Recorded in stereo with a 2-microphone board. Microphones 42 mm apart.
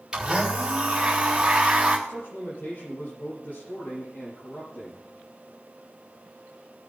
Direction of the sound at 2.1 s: 55° left (ahead or behind).